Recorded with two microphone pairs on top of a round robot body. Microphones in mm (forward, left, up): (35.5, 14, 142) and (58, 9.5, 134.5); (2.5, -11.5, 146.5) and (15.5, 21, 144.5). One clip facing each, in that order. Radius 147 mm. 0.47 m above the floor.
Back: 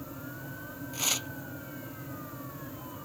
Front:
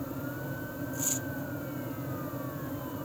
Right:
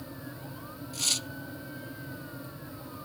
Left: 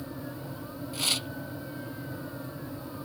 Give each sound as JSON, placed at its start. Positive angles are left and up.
{"t": 0.9, "sound": "tearing paper", "azimuth_deg": 135}